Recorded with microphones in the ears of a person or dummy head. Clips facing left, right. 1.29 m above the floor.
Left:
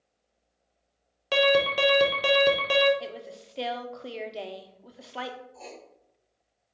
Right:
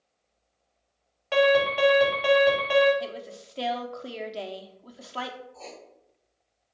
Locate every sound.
1.3 s an alarm: 45° left (ahead or behind), 1.0 m
3.0 s a woman speaking: centre (ahead or behind), 0.5 m
5.5 s writing: 20° left (ahead or behind), 1.1 m